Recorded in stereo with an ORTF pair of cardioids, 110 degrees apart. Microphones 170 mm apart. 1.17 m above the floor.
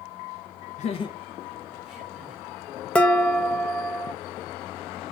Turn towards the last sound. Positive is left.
turn(degrees=5)